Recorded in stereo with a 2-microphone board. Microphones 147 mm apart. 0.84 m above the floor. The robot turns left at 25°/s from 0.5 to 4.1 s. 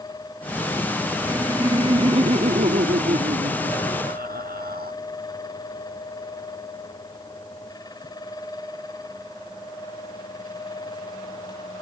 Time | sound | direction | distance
1.2 | laughter | 20° right | ?